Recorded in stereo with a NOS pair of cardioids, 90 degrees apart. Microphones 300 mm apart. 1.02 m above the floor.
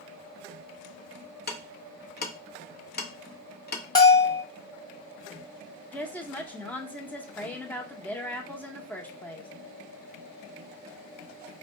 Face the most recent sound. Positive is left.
turn(degrees=5)